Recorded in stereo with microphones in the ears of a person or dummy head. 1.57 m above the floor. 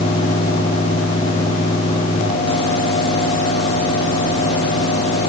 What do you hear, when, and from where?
Only background noise.